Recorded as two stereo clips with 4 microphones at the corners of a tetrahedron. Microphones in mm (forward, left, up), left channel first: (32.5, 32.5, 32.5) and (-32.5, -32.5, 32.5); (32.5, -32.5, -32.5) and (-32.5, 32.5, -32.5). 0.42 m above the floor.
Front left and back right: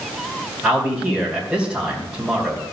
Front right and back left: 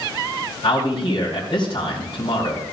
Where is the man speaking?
50° right, 2.5 m.